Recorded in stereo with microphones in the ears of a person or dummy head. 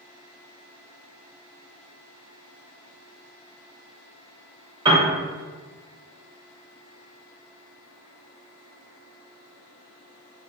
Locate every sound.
4.8 s a piano: 25° right (ahead or behind), 0.8 m